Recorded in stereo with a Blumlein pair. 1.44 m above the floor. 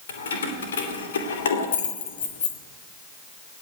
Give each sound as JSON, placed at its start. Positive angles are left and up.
{"t": 0.1, "sound": "keys jangling", "azimuth_deg": 65, "distance_m": 3.0}